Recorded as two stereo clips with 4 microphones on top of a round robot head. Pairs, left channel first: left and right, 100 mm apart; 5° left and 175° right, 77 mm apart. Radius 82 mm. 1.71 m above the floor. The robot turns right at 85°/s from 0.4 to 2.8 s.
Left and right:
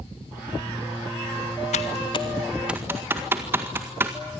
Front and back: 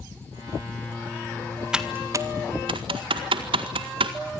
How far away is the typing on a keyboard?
About 1.8 m.